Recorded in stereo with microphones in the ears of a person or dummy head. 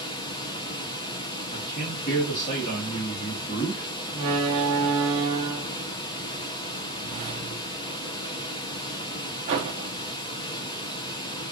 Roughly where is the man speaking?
Left.